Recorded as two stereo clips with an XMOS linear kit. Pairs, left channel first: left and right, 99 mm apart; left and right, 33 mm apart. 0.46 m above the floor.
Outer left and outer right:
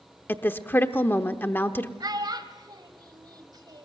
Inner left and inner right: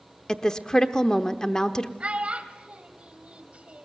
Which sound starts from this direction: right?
A child speaking, at 2.0 s.